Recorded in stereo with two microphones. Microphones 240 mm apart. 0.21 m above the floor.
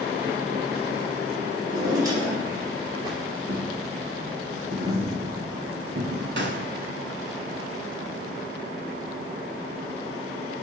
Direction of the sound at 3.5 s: 50° right (ahead or behind).